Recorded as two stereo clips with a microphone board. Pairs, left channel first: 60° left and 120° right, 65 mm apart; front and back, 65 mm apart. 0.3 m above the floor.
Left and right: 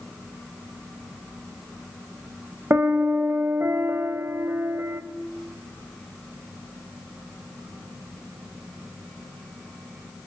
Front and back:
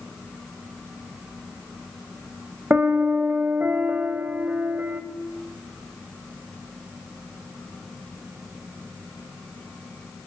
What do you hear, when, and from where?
2.7 s a piano: 140° right, 0.5 m